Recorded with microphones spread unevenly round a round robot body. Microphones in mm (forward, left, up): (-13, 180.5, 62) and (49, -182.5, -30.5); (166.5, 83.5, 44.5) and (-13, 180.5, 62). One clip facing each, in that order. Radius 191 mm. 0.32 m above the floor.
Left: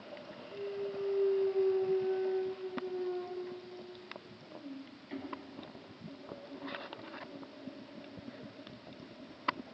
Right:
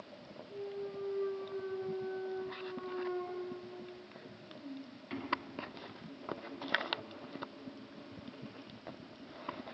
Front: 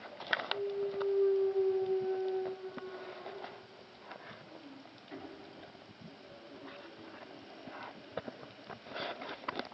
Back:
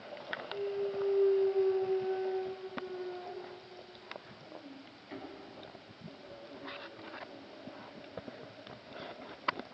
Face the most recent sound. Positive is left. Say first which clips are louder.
# left 3 dB, back 1 dB
turn(degrees=-135)